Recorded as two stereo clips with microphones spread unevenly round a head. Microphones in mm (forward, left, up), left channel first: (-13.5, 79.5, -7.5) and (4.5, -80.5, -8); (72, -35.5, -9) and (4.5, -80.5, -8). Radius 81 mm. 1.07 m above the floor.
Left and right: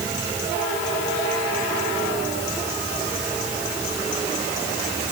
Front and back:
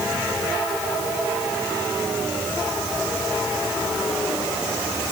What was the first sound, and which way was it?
Only background noise.